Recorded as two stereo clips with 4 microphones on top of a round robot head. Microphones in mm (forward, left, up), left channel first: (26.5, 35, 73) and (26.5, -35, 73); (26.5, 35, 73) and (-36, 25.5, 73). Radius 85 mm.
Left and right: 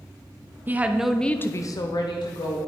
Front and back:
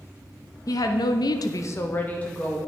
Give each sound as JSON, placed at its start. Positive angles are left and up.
{"t": 0.7, "sound": "a woman speaking", "azimuth_deg": -25, "distance_m": 1.0}